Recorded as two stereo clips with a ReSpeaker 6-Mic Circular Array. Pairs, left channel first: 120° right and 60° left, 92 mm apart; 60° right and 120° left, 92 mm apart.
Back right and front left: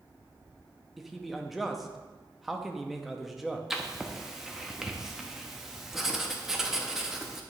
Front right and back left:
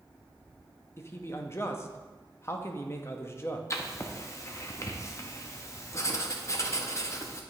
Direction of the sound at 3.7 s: 25° right.